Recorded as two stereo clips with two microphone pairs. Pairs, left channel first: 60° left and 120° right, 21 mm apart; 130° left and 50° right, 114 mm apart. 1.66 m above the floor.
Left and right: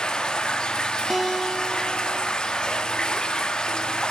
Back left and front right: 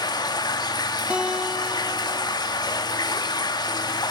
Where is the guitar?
120° right, 1.2 m.